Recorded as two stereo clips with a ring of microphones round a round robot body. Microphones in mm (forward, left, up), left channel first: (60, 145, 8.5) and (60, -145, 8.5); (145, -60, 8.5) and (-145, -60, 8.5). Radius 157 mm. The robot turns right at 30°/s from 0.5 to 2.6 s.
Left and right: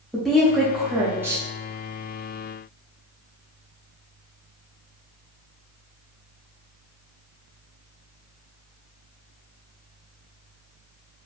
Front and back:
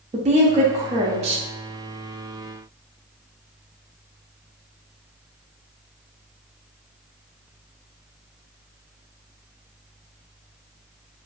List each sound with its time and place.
0.1 s a woman speaking: straight behind, 0.5 m; by 1.4 s 155° right, 0.5 m